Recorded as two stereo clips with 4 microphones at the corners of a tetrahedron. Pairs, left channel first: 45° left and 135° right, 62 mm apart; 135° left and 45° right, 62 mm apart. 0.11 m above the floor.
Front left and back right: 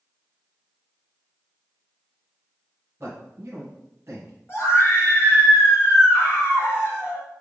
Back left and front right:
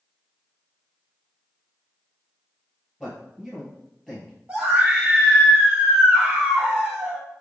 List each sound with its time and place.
3.0 s a man speaking: 135° right, 1.6 m
4.5 s a scream: 15° left, 2.5 m